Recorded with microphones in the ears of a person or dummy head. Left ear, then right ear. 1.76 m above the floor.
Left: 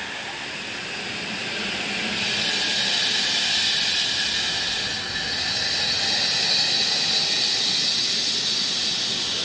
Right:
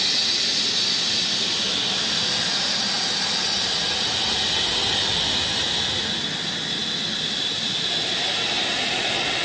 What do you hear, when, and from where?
Only background noise.